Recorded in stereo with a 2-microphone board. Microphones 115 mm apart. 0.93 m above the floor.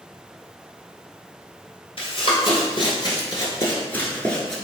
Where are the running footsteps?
50° left (ahead or behind), 1.4 m; by 4.5 s 5° left (ahead or behind), 0.9 m.